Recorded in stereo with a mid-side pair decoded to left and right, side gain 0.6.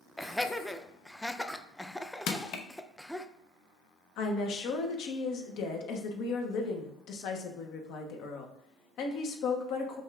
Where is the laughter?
5° left, 0.5 m.